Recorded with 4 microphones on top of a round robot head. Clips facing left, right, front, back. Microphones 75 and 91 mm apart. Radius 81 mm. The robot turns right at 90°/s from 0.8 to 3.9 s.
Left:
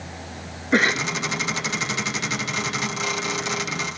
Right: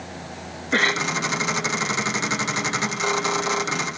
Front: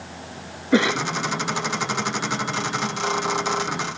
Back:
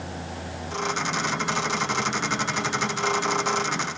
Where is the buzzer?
I don't hear a buzzer.